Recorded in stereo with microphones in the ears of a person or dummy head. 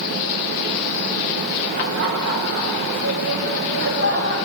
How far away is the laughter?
About 4 m.